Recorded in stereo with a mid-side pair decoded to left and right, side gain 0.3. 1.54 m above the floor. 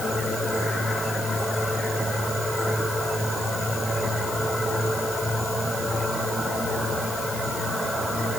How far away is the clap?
No clap in this recording.